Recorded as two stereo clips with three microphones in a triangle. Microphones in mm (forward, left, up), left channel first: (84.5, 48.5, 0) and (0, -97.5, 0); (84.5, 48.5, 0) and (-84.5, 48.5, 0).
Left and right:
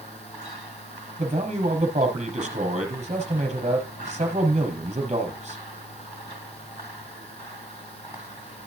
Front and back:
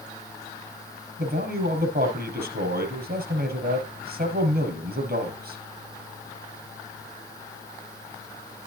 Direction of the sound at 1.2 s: 170° right.